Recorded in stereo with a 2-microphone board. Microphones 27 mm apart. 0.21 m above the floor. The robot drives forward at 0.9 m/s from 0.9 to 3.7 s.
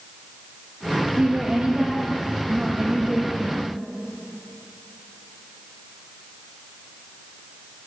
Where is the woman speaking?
35° right (ahead or behind), 5.5 m; by 3.8 s 25° right (ahead or behind), 7.5 m.